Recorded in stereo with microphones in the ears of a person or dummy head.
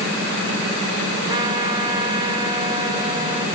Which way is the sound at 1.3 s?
20° right (ahead or behind).